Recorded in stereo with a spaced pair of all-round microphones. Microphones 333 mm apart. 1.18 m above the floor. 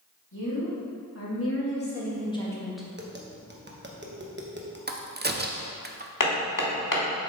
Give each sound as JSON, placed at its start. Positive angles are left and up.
{"t": 0.3, "sound": "a woman speaking", "side_deg": 60, "distance_m": 2.5}
{"t": 3.0, "sound": "tapping", "side_deg": -30, "distance_m": 1.0}
{"t": 4.9, "sound": "a crack", "side_deg": -30, "distance_m": 0.6}
{"t": 6.2, "sound": "hammering", "side_deg": 70, "distance_m": 1.4}